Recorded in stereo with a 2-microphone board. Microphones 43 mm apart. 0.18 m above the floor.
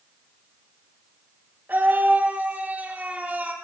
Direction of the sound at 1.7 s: 40° right (ahead or behind).